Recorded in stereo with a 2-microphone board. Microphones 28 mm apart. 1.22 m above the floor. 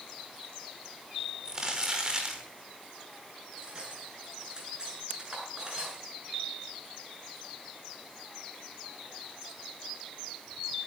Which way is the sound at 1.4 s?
20° right (ahead or behind).